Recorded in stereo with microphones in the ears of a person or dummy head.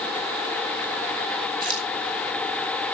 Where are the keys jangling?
40° right (ahead or behind), 1.6 m.